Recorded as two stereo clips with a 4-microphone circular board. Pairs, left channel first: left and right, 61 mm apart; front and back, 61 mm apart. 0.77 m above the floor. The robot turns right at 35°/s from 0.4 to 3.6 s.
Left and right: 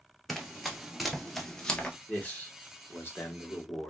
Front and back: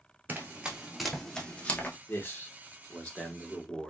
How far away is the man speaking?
About 1.2 m.